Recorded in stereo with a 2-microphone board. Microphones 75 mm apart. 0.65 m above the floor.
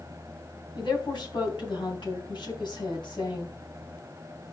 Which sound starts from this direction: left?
A woman speaking, at 0.8 s.